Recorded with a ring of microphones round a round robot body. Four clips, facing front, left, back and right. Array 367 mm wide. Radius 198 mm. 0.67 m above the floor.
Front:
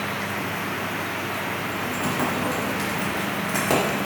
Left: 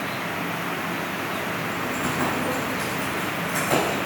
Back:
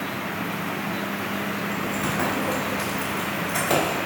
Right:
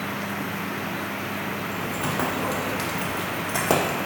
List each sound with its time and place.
1.7 s keys jangling: 95° right, 2.5 m; by 4.0 s 75° right, 1.5 m